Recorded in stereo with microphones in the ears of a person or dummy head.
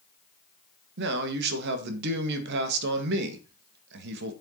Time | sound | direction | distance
1.0 | a man speaking | 65° right (ahead or behind) | 2 m